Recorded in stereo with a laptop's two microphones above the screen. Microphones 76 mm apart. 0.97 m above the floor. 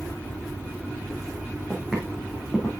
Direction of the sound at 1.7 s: 5° right (ahead or behind).